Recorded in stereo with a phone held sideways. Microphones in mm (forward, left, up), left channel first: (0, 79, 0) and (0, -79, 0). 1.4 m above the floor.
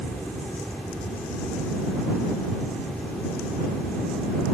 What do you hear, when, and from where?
0.0 s a fan: 5° left (ahead or behind)